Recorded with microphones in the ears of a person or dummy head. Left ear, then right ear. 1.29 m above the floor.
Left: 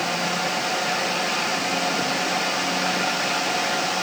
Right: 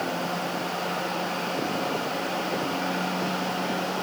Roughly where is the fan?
Left.